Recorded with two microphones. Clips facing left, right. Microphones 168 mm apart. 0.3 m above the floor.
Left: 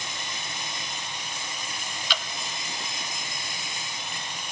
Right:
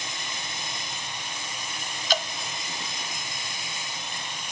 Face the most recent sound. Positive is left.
turn(degrees=-40)  # may be behind; listen again after turning